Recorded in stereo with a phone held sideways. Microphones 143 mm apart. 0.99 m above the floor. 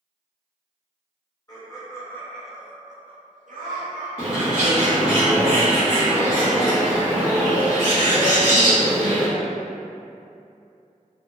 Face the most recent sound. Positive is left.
turn(degrees=-10)  # may be behind; listen again after turning